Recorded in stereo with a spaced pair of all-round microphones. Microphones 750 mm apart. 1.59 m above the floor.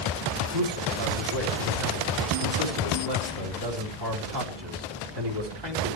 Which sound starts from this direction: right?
A man speaking, at 0.5 s.